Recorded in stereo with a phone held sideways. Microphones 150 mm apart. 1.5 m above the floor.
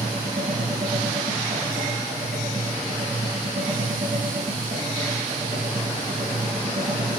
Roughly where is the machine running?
Right.